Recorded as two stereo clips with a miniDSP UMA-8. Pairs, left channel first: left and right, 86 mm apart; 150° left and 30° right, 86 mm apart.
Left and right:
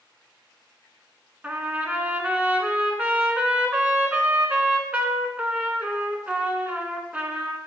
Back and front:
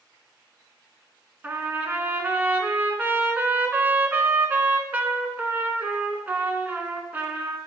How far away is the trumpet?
About 0.8 m.